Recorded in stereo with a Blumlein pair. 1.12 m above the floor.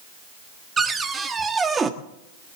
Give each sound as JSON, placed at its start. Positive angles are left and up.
{"t": 0.8, "sound": "a cupboard door", "azimuth_deg": -15, "distance_m": 1.2}